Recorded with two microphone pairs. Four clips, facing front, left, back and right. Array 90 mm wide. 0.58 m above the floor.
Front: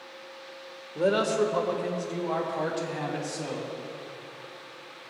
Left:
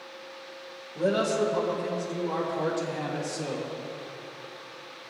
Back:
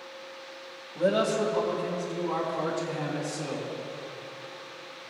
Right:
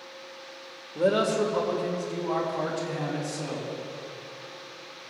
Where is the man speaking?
30° right, 1.6 m; by 3.7 s 10° right, 4.5 m.